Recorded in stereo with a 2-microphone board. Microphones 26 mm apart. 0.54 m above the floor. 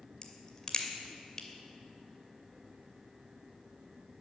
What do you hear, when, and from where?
0.2 s a crack: 30° left (ahead or behind), 2 m